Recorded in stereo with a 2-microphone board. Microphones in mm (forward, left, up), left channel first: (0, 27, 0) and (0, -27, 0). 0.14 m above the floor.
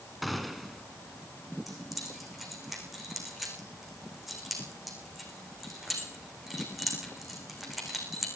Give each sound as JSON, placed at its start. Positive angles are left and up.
{"t": 0.2, "sound": "a gunshot", "side_deg": 0, "distance_m": 1.6}
{"t": 1.7, "sound": "keys jangling", "side_deg": 0, "distance_m": 8.0}